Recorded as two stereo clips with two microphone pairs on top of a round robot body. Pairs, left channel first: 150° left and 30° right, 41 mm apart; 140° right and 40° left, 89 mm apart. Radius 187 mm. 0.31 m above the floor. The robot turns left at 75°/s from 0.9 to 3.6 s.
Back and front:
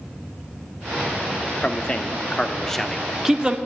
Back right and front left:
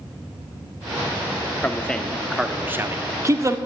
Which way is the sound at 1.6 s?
170° left.